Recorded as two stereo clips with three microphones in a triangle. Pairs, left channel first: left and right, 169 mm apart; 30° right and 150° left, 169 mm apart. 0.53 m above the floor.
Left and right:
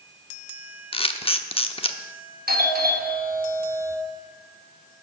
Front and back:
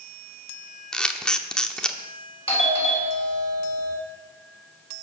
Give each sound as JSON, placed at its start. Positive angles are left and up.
{"t": 0.9, "sound": "a camera shutter", "azimuth_deg": 55, "distance_m": 0.9}
{"t": 2.5, "sound": "a doorbell", "azimuth_deg": -80, "distance_m": 3.0}